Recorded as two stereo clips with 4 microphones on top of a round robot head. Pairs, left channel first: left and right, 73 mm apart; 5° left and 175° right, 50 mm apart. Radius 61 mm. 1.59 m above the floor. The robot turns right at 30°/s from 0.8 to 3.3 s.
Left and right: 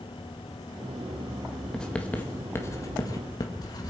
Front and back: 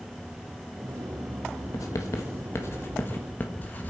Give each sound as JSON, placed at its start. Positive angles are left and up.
{"t": 1.7, "sound": "writing", "azimuth_deg": 10, "distance_m": 1.6}